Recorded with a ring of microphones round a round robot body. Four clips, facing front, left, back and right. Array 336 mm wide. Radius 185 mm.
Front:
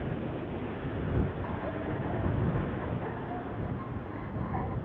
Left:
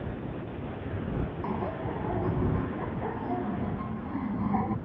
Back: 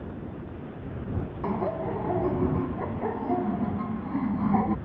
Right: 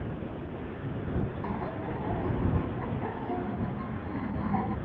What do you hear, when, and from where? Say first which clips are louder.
1.4 s laughter: left 2 dB, back 6 dB; 175° left